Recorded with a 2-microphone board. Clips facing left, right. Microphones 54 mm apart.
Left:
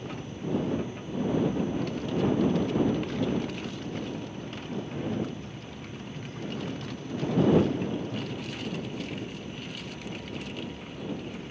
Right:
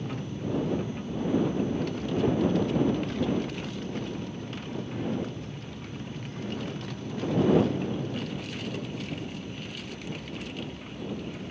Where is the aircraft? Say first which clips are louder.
Right 2 dB; 35° right (ahead or behind); by 11.5 s 15° left (ahead or behind).